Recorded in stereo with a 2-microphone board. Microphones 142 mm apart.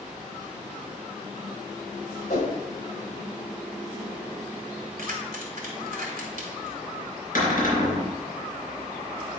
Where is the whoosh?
70° left (ahead or behind), 1.8 m.